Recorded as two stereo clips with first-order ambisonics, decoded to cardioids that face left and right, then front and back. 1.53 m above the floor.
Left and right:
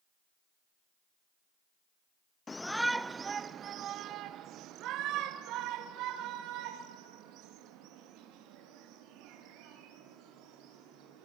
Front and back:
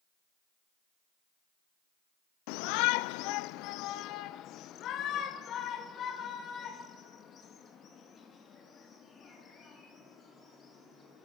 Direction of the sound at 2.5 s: 15° left.